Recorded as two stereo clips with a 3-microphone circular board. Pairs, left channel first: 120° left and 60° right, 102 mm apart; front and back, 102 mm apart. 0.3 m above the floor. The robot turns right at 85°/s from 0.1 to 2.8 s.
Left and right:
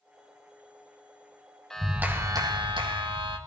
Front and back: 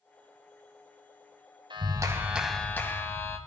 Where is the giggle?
No giggle in this recording.